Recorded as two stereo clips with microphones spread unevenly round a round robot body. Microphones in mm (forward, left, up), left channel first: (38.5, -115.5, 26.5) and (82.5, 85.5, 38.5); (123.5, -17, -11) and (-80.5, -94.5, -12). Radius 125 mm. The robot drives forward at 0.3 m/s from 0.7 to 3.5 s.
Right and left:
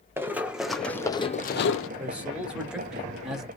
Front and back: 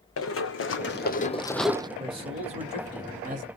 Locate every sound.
0.2 s running footsteps: straight ahead, 1.3 m; by 1.9 s 90° right, 0.7 m
2.0 s a man speaking: 160° left, 1.4 m; by 3.5 s 170° left, 1.7 m